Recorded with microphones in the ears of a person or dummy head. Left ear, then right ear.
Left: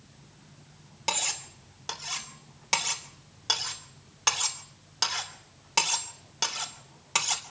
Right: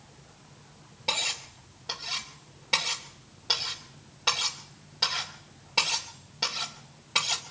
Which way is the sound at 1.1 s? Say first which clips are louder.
Right 2 dB; 45° left (ahead or behind).